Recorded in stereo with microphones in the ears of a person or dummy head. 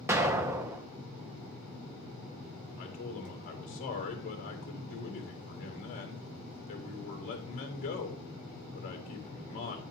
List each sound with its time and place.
0.1 s an explosion: 20° right (ahead or behind), 0.9 m
2.8 s a man speaking: 40° left (ahead or behind), 1.8 m